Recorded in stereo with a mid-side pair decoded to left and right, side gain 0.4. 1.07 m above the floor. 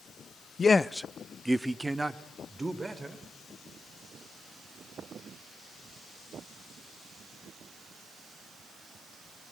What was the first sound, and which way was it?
A man speaking, 45° left.